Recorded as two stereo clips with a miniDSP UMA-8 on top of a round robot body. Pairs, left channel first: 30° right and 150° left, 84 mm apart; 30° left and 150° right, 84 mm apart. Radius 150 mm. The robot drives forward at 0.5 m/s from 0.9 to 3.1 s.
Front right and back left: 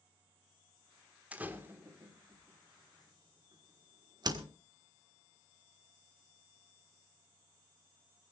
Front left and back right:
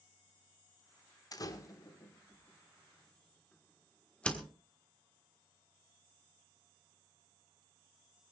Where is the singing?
No singing in this recording.